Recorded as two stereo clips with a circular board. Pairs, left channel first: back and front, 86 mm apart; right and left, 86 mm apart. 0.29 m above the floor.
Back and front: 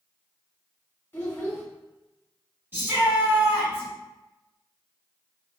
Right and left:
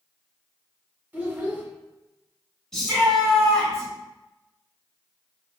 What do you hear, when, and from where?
1.1 s a child speaking: 140° left, 0.7 m
2.7 s a shout: 20° right, 1.5 m